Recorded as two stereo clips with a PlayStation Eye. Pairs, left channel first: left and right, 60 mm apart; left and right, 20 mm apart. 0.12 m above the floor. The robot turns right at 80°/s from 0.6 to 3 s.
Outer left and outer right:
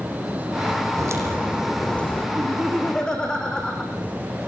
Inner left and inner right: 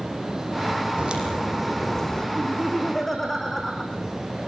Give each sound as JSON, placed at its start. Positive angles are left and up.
{"t": 1.0, "sound": "a crack", "azimuth_deg": -60, "distance_m": 5.5}
{"t": 2.4, "sound": "laughter", "azimuth_deg": -40, "distance_m": 6.0}